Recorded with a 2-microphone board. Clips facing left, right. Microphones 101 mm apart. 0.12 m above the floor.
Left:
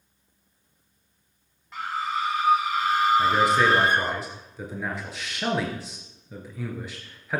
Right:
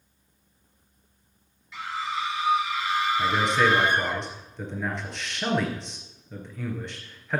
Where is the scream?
45° left (ahead or behind), 1.9 m; by 4.2 s 35° left (ahead or behind), 1.9 m.